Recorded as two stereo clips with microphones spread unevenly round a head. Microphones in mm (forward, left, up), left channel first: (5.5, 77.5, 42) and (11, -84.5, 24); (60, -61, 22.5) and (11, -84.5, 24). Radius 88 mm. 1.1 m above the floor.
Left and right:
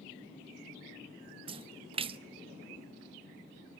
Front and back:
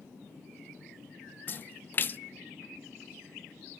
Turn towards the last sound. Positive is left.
turn(degrees=-30)